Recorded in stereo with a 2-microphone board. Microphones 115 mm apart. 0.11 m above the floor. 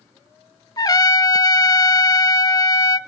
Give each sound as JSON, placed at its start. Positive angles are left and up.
{"t": 0.8, "sound": "a trumpet", "side_deg": 35, "distance_m": 0.5}